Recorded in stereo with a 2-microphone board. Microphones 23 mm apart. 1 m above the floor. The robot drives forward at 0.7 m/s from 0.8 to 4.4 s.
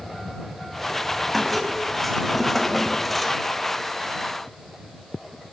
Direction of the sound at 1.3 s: 5° left (ahead or behind).